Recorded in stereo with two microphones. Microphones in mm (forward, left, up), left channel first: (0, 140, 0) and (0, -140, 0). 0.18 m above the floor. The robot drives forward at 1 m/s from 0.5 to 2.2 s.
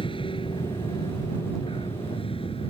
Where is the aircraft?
20° left (ahead or behind).